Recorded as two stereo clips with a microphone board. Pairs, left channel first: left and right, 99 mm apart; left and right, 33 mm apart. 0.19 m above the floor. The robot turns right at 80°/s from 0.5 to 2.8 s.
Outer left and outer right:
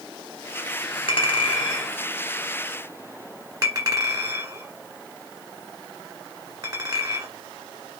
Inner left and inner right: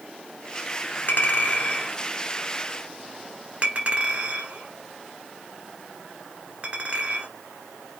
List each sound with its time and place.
1.1 s a clink: 60° left (ahead or behind), 1.3 m; by 7.3 s 40° right (ahead or behind), 1.3 m